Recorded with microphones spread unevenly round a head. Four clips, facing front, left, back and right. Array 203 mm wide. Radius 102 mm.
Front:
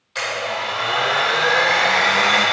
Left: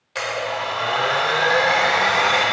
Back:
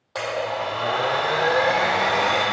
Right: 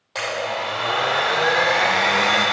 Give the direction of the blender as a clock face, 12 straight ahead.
5 o'clock.